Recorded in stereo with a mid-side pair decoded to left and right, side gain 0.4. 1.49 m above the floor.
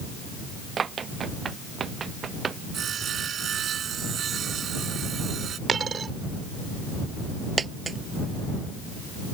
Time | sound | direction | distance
0.8 | running footsteps | 50° right | ?
2.7 | sawing | 60° right | ?
5.7 | a dropped coin | 50° right | ?
7.6 | a dropped coin | 40° right | ?